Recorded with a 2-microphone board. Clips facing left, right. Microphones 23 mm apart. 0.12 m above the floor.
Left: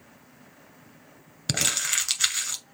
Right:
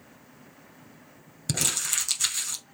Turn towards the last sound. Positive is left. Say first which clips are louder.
# left 2 dB
turn(degrees=30)  # may be behind; listen again after turning